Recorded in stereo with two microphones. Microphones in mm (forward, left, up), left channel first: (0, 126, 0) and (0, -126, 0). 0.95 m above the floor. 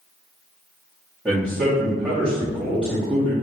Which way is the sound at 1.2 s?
5° right (ahead or behind).